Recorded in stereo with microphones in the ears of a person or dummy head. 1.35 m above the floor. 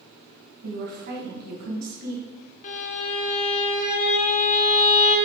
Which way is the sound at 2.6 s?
40° left (ahead or behind).